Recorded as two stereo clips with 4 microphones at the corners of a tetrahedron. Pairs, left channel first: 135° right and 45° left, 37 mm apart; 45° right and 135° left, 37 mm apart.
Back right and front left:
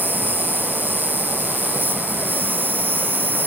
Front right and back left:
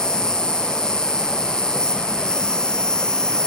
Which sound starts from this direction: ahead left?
An insect, at 0.0 s.